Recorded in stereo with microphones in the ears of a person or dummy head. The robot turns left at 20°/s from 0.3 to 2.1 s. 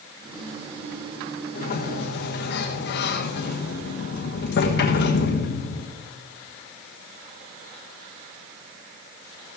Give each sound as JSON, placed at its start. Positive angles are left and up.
{"t": 1.6, "sound": "a sliding door", "side_deg": 45, "distance_m": 1.2}